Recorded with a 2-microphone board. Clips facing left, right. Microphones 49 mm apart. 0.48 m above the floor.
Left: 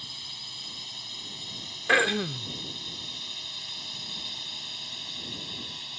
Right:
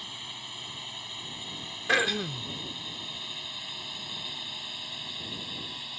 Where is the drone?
20° right (ahead or behind); by 6.0 s 10° right (ahead or behind).